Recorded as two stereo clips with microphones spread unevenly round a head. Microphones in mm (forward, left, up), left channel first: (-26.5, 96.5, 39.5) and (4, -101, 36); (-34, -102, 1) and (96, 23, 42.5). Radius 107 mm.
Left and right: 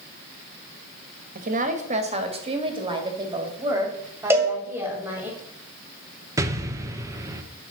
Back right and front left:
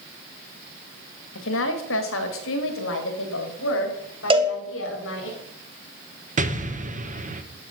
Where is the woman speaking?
130° right, 1.5 m; by 5.3 s 160° right, 3 m.